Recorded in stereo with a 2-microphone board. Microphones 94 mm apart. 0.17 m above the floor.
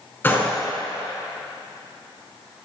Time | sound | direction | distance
0.2 | a gunshot | 20° left (ahead or behind) | 2.5 m